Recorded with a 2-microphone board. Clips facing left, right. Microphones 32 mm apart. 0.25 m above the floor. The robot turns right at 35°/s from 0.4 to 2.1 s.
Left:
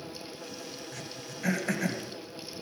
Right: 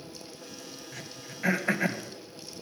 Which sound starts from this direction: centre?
Throat clearing, at 0.9 s.